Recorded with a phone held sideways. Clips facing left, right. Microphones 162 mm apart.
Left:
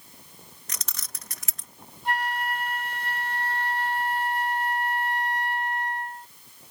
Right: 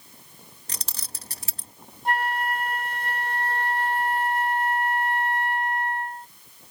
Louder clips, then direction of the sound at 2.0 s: Right 3 dB; 50° right (ahead or behind).